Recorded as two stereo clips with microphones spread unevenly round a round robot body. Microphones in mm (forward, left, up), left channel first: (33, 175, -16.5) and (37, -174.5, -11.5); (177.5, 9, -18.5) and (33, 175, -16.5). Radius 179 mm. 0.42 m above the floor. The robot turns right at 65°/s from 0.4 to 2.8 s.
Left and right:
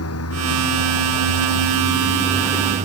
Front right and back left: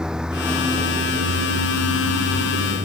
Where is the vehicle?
45° left; by 2.9 s 160° right.